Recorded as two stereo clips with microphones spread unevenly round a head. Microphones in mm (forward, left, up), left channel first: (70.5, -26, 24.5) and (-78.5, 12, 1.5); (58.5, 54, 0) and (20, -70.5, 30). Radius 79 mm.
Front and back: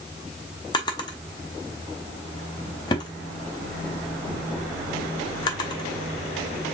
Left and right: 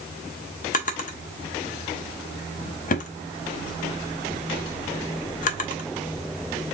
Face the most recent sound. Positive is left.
turn(degrees=45)